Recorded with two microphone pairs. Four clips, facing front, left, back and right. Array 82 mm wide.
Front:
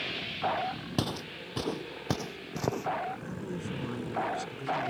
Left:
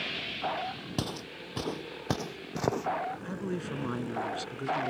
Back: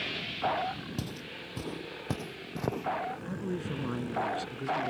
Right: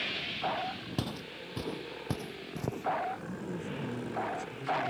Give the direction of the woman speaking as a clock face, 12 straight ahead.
9 o'clock.